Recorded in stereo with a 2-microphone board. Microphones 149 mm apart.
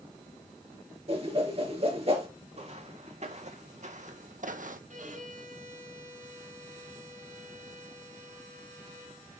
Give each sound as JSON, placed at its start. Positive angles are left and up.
{"t": 1.1, "sound": "a whoosh", "side_deg": -40, "distance_m": 4.5}
{"t": 2.5, "sound": "footsteps", "side_deg": -45, "distance_m": 2.0}
{"t": 4.9, "sound": "a violin", "side_deg": -60, "distance_m": 2.5}